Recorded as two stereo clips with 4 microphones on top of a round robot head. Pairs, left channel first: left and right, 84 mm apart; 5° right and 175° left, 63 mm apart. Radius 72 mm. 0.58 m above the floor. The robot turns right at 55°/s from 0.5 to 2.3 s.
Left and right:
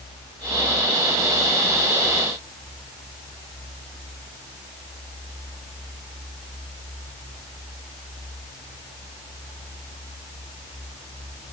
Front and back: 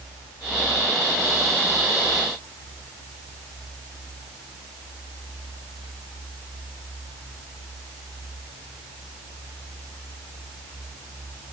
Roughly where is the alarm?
I don't hear an alarm.